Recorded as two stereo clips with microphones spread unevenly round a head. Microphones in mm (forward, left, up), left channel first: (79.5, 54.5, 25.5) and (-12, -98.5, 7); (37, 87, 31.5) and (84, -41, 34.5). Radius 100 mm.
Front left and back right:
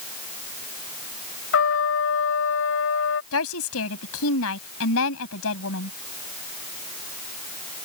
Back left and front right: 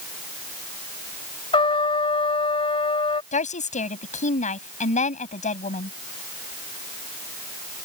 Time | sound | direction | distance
1.5 | a trumpet | 60° left | ?
3.3 | a woman speaking | 75° left | ?